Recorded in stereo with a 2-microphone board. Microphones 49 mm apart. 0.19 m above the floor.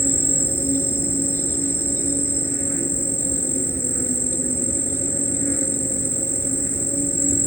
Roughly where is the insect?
Left.